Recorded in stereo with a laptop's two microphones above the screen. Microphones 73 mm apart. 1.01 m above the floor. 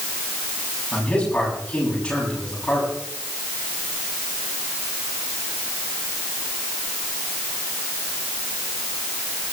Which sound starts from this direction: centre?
A man speaking, at 0.9 s.